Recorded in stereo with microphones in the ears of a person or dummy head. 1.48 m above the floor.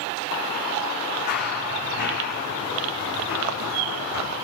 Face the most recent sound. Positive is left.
turn(degrees=75)  # may be behind; listen again after turning